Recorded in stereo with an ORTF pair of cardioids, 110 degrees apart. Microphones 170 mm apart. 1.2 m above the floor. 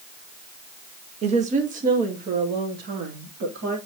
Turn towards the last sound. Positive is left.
turn(degrees=-75)